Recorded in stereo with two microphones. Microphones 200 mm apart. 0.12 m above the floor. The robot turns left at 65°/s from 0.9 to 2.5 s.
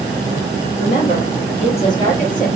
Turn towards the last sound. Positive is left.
turn(degrees=-5)